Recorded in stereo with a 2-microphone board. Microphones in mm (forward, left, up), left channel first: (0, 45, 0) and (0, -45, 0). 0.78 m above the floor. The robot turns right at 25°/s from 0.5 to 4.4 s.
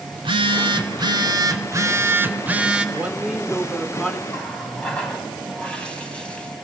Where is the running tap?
10° left (ahead or behind), 4 m.